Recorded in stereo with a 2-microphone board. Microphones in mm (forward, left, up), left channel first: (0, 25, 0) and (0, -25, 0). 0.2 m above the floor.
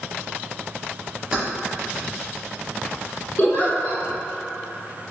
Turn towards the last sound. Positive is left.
turn(degrees=40)  # may be behind; listen again after turning